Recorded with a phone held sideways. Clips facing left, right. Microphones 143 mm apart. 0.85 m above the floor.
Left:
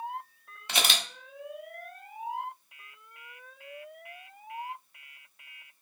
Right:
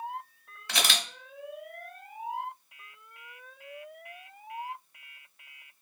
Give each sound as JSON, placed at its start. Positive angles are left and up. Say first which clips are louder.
{"t": 0.7, "sound": "a camera shutter", "louder": "even", "side_deg": 20, "distance_m": 0.9}